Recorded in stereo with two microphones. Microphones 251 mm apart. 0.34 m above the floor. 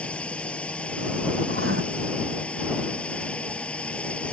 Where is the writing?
60° right (ahead or behind).